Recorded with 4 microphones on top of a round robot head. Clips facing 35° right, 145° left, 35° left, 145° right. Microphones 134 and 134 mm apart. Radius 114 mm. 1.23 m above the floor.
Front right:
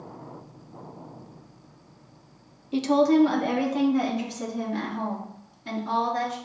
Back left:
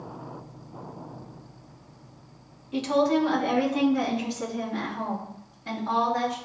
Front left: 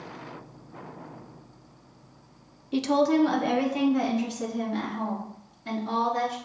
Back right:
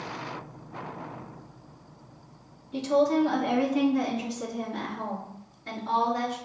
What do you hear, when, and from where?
2.7 s a woman speaking: 25° left, 0.5 m; by 6.4 s 5° left, 3.5 m